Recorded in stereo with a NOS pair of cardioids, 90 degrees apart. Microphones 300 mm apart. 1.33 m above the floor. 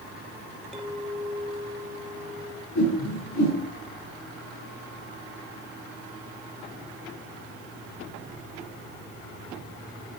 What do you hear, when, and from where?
0.7 s a clink: straight ahead, 3 m
2.8 s a whoosh: 70° left, 7 m